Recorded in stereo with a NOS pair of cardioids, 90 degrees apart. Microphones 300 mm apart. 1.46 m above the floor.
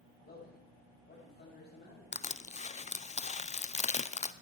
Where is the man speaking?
35° left, 8.5 m.